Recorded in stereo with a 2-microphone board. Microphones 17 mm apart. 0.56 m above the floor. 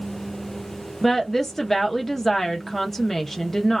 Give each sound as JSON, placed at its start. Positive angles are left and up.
{"t": 1.0, "sound": "a woman speaking", "side_deg": 20, "distance_m": 0.6}